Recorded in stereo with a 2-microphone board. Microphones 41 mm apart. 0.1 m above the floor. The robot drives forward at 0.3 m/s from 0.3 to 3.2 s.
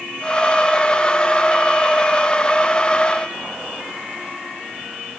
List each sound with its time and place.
Only background noise.